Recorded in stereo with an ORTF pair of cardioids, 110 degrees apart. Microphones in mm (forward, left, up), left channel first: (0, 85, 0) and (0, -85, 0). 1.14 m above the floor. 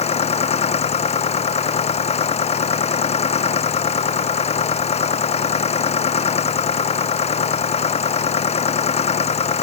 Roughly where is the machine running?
Ahead left.